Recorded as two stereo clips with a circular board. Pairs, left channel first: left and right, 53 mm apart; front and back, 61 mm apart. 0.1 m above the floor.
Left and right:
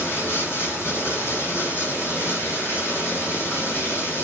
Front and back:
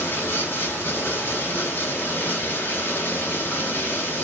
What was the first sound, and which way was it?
Running water, 50° left.